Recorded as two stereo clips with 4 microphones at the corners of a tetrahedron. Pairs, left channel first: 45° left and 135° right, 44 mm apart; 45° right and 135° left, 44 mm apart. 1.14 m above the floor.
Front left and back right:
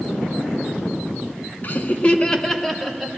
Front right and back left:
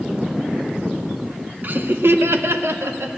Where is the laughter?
90° left, 0.7 m; by 3.1 s 135° left, 1.1 m.